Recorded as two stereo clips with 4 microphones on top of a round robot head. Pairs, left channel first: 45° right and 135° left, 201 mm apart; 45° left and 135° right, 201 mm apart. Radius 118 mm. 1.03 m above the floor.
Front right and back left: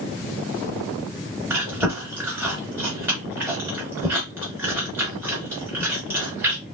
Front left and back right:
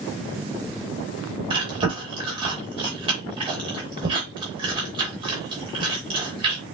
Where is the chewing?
160° right, 0.9 m.